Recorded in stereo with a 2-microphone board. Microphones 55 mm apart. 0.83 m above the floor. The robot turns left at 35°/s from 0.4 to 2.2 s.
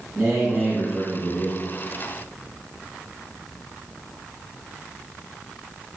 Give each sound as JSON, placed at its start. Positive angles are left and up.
{"t": 0.1, "sound": "a man speaking", "azimuth_deg": -150, "distance_m": 5.5}